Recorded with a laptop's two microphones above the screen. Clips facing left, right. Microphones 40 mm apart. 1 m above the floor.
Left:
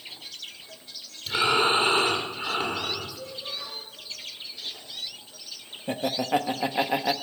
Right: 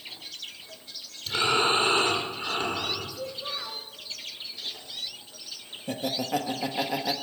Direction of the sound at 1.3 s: 15° left (ahead or behind).